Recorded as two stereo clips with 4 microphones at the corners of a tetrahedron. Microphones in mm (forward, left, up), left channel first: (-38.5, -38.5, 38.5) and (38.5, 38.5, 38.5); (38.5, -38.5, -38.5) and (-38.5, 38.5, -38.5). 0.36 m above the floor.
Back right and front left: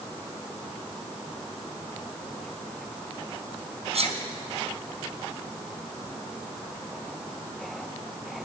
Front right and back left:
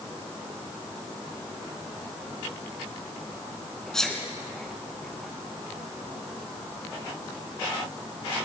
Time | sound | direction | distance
3.9 | a sneeze | 40° left | 4 m